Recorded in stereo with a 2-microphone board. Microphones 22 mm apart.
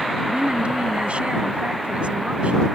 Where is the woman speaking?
65° right (ahead or behind).